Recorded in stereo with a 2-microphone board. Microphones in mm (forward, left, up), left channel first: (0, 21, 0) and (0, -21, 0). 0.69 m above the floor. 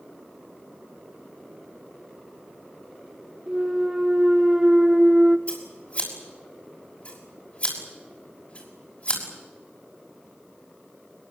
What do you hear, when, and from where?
3.5 s a clunk: 20° right (ahead or behind), 0.6 m
5.5 s scissors: 35° left (ahead or behind), 6 m